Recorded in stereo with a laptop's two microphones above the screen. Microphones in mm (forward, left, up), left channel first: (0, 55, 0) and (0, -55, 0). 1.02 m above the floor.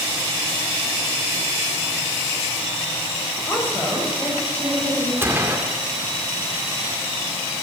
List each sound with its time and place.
3.5 s a woman speaking: 20° left (ahead or behind), 6 m
5.2 s a gunshot: 20° right (ahead or behind), 2 m